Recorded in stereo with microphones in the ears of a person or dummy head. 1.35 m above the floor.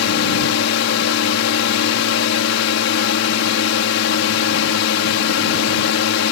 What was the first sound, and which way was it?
A drone, 65° left (ahead or behind).